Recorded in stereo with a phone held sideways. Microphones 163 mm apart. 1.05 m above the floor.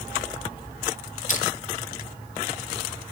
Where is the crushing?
50° left (ahead or behind), 1.7 m.